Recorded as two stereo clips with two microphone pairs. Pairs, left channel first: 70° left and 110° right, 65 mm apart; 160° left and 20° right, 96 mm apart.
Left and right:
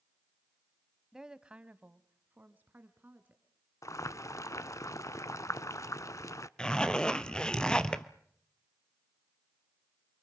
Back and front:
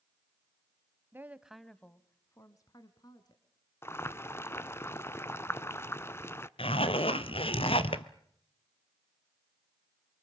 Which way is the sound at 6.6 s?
150° left.